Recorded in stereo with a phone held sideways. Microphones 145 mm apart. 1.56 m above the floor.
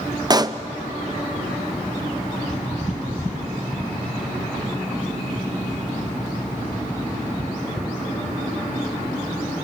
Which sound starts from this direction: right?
A pop, at 0.3 s.